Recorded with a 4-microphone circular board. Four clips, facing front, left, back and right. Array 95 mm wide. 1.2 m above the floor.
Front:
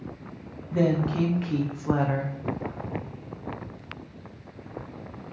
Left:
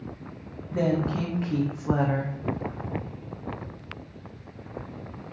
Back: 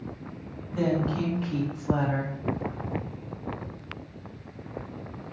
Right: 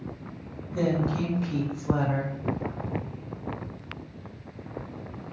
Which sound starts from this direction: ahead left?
A woman speaking, at 0.7 s.